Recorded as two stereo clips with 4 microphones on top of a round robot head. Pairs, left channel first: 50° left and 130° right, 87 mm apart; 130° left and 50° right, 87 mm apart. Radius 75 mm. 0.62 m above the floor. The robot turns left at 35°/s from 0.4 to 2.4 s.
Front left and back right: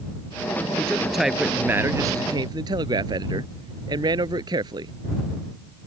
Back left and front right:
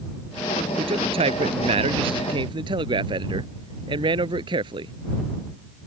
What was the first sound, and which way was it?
A man speaking, 25° right.